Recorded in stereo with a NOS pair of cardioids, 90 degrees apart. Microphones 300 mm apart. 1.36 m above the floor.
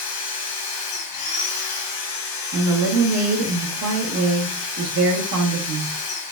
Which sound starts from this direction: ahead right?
A woman speaking, at 2.5 s.